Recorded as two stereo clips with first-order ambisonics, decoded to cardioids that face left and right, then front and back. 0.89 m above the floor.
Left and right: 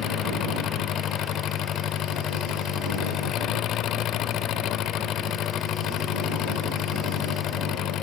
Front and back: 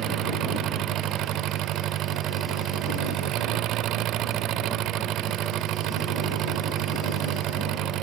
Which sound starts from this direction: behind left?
An engine running, at 0.0 s.